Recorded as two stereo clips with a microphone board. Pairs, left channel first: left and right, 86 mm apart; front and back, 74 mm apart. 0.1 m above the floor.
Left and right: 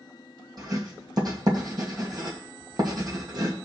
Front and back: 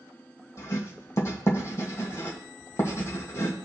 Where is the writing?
50° right, 2.5 m.